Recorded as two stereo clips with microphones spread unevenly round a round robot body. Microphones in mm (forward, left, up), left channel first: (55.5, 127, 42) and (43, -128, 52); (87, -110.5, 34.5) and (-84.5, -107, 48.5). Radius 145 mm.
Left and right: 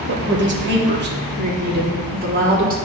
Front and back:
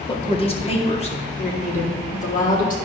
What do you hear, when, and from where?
0.1 s a woman speaking: 55° right, 2.0 m; by 2.8 s 35° right, 3.5 m